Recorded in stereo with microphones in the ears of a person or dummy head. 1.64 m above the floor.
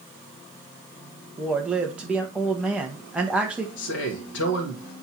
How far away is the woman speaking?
About 1.8 m.